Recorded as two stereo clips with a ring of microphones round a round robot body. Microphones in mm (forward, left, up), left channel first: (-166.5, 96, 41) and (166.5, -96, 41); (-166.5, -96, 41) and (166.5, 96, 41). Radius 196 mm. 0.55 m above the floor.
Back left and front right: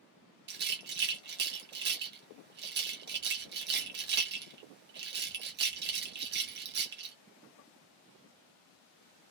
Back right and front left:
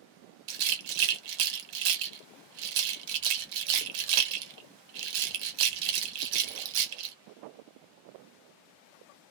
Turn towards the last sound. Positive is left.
turn(degrees=30)